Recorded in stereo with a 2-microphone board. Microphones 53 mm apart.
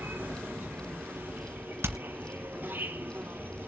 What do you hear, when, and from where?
0.0 s an insect: 40° right (ahead or behind), 1.9 m
1.8 s hammering: 50° right (ahead or behind), 2.5 m